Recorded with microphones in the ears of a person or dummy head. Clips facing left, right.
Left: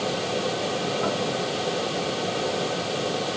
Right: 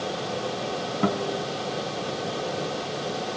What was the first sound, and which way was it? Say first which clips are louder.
A guitar: even; 40° right (ahead or behind).